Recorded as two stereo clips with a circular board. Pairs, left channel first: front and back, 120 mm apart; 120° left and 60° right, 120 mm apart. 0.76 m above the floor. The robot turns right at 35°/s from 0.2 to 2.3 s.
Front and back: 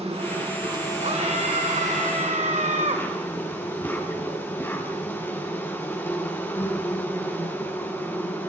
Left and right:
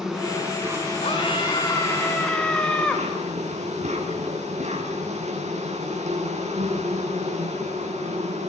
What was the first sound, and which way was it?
An insect, 145° right.